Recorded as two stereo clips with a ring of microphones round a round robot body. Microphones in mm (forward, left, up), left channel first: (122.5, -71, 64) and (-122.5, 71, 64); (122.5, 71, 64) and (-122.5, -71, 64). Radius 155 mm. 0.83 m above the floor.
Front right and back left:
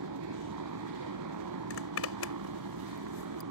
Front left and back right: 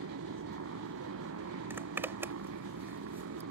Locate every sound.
0.0 s a motorcycle: 170° left
1.7 s a zipper: 70° right